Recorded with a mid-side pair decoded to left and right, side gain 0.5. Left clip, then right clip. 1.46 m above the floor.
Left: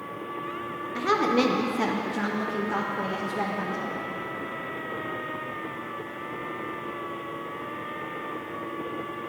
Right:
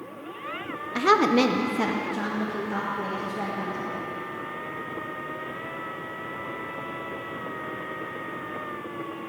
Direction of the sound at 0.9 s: 50° right.